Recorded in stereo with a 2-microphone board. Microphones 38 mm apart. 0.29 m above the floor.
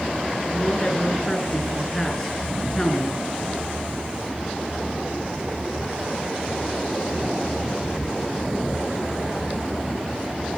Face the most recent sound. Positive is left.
turn(degrees=10)  # may be behind; listen again after turning